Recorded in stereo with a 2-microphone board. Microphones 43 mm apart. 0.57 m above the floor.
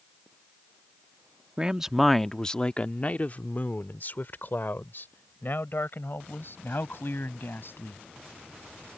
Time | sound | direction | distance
1.6 | a man speaking | 20° right (ahead or behind) | ?